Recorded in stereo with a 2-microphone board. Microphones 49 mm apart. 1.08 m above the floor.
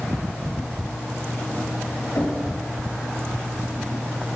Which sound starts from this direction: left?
Knocking, at 2.1 s.